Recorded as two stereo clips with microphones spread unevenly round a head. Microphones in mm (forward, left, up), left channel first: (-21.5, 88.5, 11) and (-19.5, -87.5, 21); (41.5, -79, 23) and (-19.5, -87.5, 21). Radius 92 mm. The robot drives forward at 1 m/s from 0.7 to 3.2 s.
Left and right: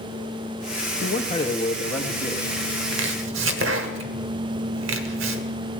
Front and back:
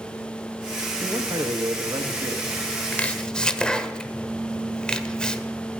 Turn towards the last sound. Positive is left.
turn(degrees=-70)